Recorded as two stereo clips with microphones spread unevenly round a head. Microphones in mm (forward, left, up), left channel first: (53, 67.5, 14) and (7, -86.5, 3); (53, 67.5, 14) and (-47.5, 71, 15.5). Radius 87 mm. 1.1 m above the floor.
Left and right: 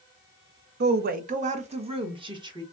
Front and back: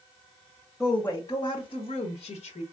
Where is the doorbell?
No doorbell in this recording.